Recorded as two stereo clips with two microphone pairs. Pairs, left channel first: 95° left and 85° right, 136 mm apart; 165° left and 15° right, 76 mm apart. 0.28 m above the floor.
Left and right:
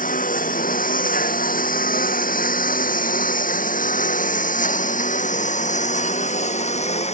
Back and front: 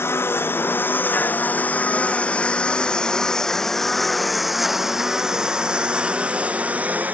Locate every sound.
0.0 s a lawn mower: 110° left; by 7.2 s 55° left